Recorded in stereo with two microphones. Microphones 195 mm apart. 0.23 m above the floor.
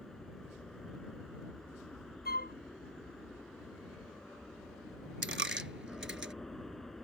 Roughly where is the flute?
Left.